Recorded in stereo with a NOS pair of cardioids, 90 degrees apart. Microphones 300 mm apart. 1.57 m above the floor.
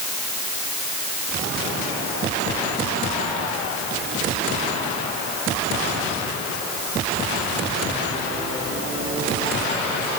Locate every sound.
Only background noise.